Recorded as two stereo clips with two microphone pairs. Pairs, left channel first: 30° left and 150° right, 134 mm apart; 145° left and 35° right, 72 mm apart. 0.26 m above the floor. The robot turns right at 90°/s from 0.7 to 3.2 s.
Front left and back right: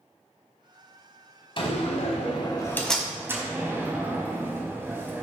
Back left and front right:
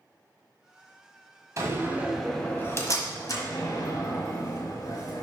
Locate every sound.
1.6 s a door slam: 5° right, 1.6 m; by 5.2 s 145° left, 1.6 m